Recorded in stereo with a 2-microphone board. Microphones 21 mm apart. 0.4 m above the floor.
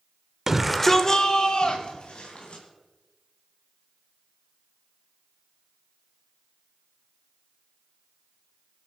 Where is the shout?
25° right (ahead or behind), 0.9 m; by 2.6 s 50° left (ahead or behind), 3 m.